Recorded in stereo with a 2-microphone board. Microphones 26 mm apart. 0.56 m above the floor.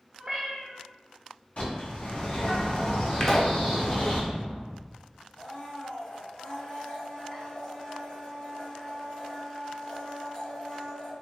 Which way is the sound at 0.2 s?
30° right (ahead or behind).